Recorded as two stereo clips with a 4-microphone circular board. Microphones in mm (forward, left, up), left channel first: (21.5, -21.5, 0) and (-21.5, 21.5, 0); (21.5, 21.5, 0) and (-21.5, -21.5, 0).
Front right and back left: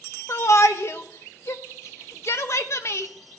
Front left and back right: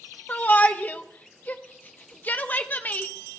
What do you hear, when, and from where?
0.3 s a shout: 10° right, 0.9 m